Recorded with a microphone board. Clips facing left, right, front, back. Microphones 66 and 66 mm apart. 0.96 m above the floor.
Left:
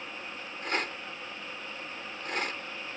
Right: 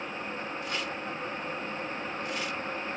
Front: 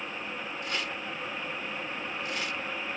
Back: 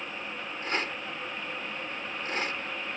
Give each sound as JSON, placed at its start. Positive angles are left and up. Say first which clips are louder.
{"t": 0.6, "sound": "a rattle", "louder": "left 1 dB, back 4 dB", "azimuth_deg": 130}